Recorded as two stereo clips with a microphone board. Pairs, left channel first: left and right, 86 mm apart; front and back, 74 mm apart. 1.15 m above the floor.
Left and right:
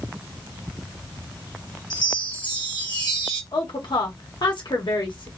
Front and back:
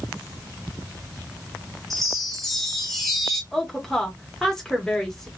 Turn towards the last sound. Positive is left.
turn(degrees=85)